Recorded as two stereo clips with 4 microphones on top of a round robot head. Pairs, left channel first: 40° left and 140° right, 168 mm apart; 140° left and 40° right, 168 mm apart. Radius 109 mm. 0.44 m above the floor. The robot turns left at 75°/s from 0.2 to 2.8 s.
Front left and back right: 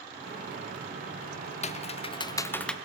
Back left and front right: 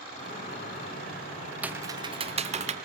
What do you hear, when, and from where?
1.6 s typing on a keyboard: 40° left, 0.6 m; by 2.8 s 45° right, 0.6 m